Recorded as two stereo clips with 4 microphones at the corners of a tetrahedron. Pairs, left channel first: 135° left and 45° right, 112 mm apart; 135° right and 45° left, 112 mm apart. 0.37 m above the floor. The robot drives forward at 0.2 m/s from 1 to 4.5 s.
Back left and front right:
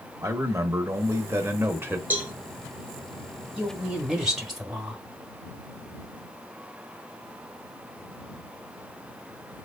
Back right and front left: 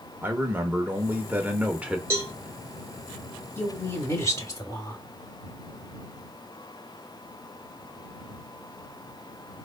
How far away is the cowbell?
About 1.4 m.